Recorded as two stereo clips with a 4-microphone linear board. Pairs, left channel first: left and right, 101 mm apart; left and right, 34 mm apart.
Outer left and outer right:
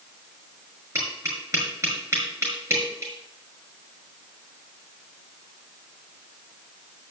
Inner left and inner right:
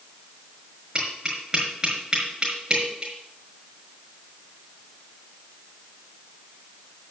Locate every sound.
0.9 s tapping: 30° right (ahead or behind), 6 m